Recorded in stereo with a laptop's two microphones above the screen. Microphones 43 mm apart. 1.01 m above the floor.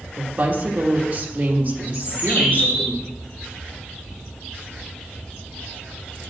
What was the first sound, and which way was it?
A woman speaking, 40° right (ahead or behind).